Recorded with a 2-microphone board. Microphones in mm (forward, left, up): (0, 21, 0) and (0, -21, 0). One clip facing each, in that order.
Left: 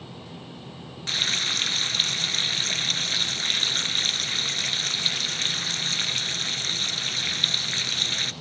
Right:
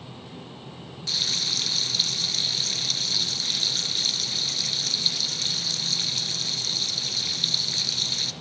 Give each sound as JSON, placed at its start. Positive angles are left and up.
{"t": 1.1, "sound": "frying", "side_deg": 40, "distance_m": 1.1}